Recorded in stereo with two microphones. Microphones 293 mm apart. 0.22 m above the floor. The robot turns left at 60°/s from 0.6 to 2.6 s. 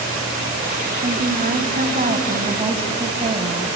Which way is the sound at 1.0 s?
50° right.